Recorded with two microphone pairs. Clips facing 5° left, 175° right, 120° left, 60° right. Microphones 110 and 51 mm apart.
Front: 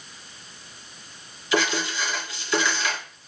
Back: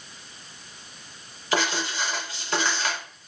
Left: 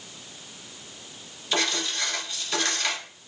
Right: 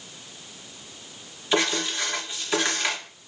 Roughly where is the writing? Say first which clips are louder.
Front 2 dB, right 3 dB; behind right.